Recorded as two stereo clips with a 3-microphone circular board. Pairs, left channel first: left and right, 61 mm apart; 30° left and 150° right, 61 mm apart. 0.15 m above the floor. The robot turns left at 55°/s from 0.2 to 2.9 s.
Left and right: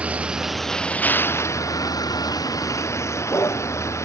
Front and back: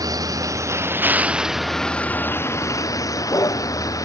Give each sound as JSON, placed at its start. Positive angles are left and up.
{"t": 0.0, "sound": "a vehicle", "azimuth_deg": -160}